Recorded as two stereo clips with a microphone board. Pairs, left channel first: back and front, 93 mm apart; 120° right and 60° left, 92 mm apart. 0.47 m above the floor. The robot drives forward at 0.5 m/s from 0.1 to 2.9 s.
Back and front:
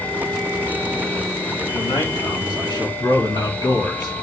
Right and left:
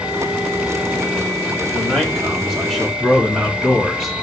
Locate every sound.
1.7 s a man speaking: 145° left, 5 m